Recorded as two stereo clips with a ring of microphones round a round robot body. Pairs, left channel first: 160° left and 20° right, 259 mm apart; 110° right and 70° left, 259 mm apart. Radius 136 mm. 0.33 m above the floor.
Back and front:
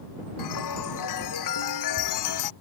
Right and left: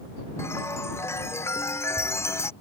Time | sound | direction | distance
0.4 | a chime | 165° left | ?